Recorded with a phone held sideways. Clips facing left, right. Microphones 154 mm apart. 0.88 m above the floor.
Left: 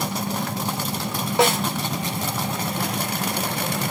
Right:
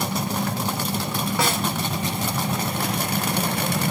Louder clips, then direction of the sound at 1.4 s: Left 7 dB; 25° left (ahead or behind).